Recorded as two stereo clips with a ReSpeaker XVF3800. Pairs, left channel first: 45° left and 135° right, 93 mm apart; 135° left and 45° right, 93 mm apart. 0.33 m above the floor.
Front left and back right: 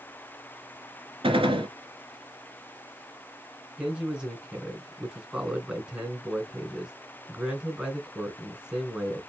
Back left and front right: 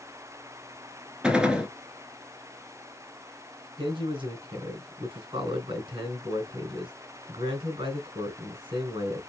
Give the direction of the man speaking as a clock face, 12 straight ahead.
2 o'clock.